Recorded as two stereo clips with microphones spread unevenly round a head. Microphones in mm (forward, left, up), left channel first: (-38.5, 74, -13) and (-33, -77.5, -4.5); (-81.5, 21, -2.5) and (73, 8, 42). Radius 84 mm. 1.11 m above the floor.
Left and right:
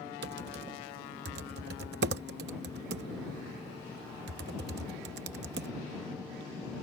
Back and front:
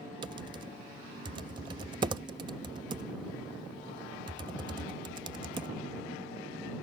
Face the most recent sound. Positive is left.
turn(degrees=-65)